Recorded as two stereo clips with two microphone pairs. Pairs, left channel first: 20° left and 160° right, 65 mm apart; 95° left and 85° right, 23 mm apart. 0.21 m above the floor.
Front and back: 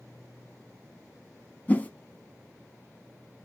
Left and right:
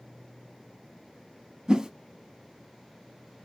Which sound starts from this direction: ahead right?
A whoosh, at 1.7 s.